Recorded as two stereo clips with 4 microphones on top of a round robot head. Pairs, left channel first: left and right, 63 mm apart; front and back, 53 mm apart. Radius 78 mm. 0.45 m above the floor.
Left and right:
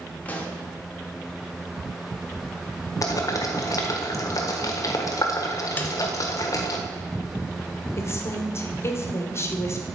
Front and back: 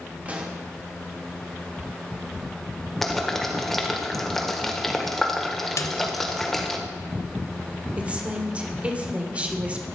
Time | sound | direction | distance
0.2 | a pop | 140° left | 1.7 m
3.0 | boiling | 85° left | 1.6 m
5.8 | a snare drum | 25° left | 0.9 m
8.0 | a woman speaking | 120° left | 1.8 m